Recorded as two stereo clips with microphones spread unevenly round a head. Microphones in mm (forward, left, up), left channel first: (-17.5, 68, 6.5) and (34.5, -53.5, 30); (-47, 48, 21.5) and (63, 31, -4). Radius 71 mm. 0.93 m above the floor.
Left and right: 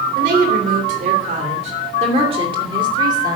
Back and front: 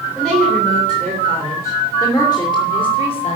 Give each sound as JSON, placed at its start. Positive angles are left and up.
{"t": 0.1, "sound": "a woman speaking", "azimuth_deg": -100, "distance_m": 3.5}